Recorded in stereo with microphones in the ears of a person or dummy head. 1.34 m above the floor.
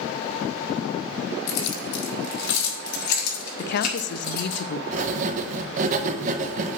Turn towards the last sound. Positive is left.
turn(degrees=-40)  # may be behind; listen again after turning